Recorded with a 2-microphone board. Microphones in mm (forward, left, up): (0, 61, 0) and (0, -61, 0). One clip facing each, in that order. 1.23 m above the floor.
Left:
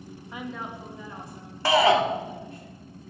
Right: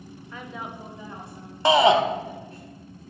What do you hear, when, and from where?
0.3 s a woman speaking: 20° left (ahead or behind), 0.7 m; by 2.6 s 35° right (ahead or behind), 3.5 m
1.6 s a shout: 20° right (ahead or behind), 0.6 m